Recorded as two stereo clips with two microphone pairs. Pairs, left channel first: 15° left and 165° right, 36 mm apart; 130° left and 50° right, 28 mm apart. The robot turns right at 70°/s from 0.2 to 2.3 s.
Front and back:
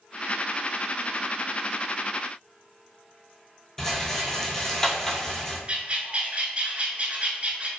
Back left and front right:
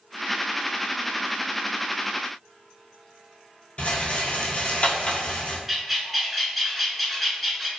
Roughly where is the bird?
Behind right.